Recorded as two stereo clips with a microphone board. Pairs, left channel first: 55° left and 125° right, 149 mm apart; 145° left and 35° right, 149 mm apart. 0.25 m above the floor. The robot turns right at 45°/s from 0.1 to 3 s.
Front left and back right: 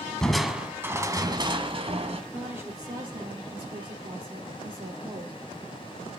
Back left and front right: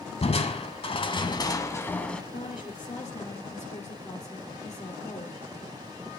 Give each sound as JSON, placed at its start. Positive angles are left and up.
{"t": 0.2, "sound": "crushing", "azimuth_deg": 140, "distance_m": 1.4}
{"t": 2.3, "sound": "a woman speaking", "azimuth_deg": 150, "distance_m": 4.0}